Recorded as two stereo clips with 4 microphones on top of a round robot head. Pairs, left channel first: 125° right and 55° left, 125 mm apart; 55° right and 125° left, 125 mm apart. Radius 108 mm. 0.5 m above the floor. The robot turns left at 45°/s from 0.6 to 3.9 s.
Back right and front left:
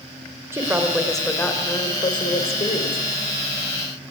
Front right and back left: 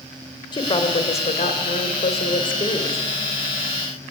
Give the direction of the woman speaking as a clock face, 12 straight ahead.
12 o'clock.